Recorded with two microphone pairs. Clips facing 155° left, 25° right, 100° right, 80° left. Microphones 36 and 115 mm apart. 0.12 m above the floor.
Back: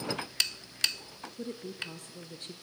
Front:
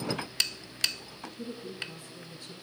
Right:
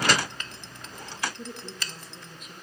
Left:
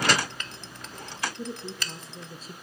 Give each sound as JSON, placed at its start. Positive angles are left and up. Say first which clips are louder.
{"t": 1.4, "sound": "a woman speaking", "louder": "back 1 dB, left 3 dB", "azimuth_deg": 160, "distance_m": 3.0}